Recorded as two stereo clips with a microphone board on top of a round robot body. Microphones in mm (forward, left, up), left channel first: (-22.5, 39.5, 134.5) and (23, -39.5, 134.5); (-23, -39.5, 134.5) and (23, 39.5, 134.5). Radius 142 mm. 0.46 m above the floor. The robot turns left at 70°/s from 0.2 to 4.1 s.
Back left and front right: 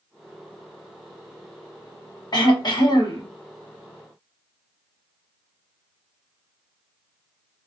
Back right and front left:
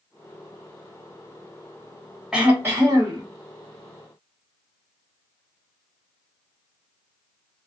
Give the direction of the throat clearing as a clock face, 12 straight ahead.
7 o'clock.